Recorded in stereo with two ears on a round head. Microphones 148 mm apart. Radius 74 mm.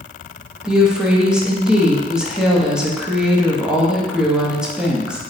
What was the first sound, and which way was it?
A woman speaking, 5° right (ahead or behind).